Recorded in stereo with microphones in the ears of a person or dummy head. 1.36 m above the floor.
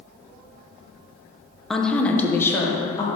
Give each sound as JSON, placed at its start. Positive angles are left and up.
{"t": 1.7, "sound": "a woman speaking", "side_deg": 0, "distance_m": 0.6}